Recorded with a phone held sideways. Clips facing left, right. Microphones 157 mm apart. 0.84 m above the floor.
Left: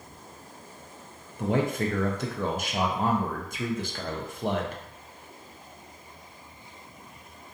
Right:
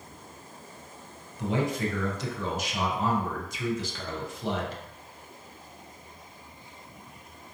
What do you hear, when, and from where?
1.4 s a man speaking: 55° left (ahead or behind), 0.5 m